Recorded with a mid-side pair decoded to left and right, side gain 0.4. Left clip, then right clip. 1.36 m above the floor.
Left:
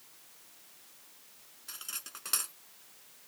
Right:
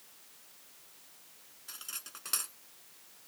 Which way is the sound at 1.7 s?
15° left.